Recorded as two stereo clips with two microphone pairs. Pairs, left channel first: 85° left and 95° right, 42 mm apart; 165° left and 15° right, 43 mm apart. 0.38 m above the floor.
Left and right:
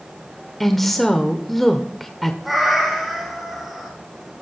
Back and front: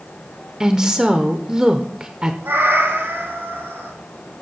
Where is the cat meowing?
5° right, 5.5 m.